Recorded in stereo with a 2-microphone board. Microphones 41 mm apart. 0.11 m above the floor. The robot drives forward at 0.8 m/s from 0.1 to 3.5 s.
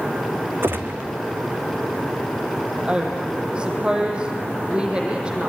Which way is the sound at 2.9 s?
30° right (ahead or behind).